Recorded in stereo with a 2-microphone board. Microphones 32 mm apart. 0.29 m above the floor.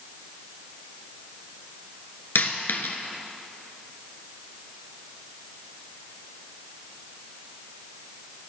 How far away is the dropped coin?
About 1.5 m.